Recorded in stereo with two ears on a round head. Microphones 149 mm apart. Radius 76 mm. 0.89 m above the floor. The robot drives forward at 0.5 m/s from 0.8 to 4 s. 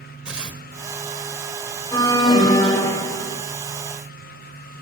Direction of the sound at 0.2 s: 5° right (ahead or behind).